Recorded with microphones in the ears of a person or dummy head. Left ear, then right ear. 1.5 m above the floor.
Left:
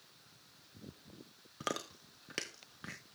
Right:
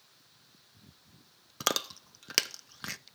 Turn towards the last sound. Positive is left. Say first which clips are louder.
# right 9 dB
turn(degrees=-35)  # may be behind; listen again after turning